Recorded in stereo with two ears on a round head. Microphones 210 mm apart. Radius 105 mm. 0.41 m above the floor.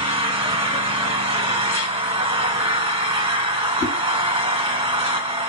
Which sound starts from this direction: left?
A whoosh, at 3.8 s.